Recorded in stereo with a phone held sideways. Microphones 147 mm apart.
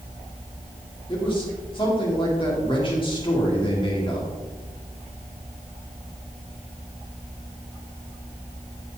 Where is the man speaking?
35° left (ahead or behind), 2.5 m.